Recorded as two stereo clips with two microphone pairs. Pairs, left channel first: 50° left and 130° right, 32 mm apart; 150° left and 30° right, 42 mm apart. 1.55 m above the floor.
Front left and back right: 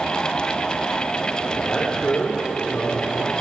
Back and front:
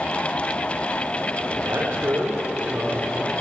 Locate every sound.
1.6 s a man speaking: 15° right, 4.5 m